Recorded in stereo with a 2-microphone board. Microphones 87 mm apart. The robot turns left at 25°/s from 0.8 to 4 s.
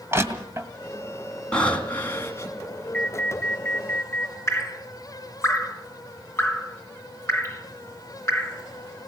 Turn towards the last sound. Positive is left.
turn(degrees=35)  # may be behind; listen again after turning